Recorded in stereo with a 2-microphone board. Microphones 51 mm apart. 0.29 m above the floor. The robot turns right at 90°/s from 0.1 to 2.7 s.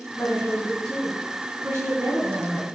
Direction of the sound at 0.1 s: 95° left.